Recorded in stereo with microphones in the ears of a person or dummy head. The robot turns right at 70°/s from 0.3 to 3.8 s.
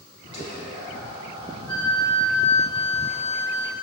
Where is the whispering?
40° left, 1.3 m; by 1.6 s 125° left, 1.3 m.